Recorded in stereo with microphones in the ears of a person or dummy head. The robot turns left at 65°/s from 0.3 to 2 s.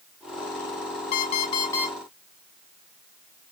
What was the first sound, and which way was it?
An alarm clock, 65° left.